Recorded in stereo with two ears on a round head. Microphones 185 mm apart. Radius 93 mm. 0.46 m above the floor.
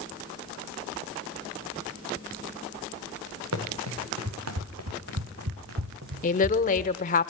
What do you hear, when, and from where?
3.5 s running footsteps: 80° right, 4 m; by 6.9 s 40° right (ahead or behind), 1.9 m
6.2 s a woman speaking: 40° left (ahead or behind), 1.2 m